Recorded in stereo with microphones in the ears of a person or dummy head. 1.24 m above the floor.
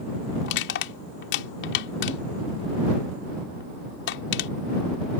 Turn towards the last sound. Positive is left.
turn(degrees=65)  # may be behind; listen again after turning